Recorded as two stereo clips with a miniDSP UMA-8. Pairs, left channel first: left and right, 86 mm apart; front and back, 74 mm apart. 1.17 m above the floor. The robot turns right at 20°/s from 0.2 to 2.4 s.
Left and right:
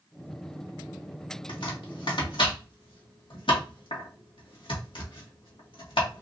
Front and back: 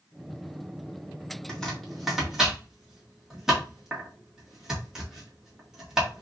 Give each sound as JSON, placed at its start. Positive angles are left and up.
{"t": 1.5, "sound": "chopping", "azimuth_deg": 80, "distance_m": 1.9}